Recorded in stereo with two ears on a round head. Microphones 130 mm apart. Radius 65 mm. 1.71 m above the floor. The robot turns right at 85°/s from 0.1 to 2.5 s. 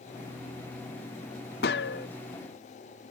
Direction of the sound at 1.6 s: 70° left.